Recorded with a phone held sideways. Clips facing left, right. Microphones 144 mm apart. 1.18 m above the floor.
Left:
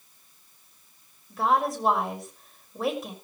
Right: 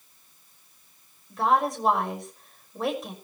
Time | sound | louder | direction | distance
1.3 | a woman speaking | right 1 dB | centre (ahead or behind) | 5.5 m